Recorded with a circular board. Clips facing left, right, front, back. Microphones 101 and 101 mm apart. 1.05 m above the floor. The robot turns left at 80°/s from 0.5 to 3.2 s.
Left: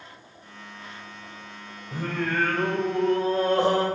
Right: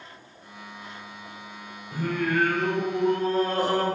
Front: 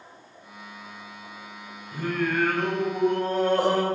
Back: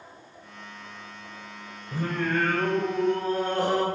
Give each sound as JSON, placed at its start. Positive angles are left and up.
{"t": 1.9, "sound": "singing", "azimuth_deg": 130, "distance_m": 3.0}